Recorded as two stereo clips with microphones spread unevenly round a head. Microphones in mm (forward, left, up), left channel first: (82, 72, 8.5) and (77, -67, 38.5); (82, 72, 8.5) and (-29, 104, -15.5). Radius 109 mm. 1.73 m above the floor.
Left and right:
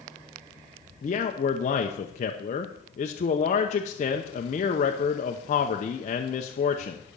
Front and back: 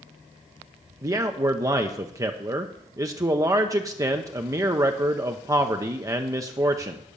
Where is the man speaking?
105° left, 0.7 m.